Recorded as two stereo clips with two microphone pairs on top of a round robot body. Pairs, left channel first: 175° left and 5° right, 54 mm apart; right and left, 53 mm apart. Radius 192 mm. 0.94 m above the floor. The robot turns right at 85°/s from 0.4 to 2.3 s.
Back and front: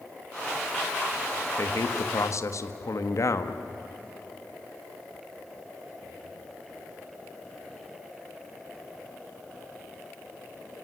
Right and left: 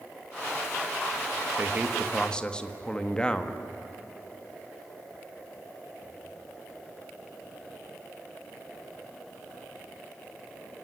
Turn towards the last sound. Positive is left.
turn(degrees=-165)